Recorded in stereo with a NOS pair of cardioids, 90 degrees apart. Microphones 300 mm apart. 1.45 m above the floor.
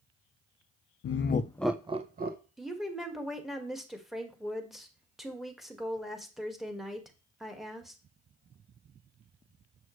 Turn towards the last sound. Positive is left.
turn(degrees=0)